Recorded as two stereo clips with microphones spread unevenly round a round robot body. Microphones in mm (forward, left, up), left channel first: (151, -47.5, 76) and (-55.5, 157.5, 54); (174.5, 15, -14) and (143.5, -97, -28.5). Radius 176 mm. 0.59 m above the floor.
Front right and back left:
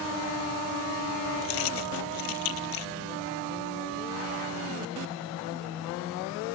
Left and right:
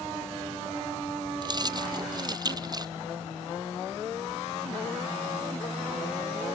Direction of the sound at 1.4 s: 50° right.